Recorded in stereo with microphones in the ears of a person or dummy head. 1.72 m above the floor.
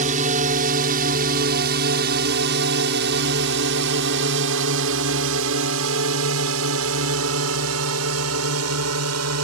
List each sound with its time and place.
0.0 s a drone: 40° right (ahead or behind); by 9.4 s 80° right